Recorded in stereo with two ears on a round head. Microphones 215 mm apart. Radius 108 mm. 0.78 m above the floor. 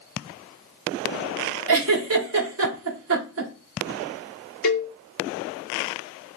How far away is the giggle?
About 0.9 m.